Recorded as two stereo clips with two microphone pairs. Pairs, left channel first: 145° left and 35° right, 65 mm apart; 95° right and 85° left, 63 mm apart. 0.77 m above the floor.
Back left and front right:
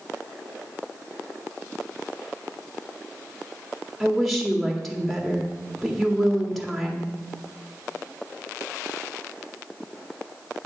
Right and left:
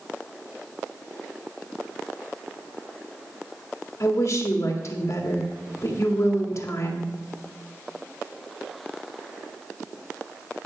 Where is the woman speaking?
125° right, 1.9 m.